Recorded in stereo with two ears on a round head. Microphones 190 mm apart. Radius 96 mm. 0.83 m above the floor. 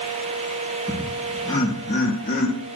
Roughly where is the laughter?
Centre.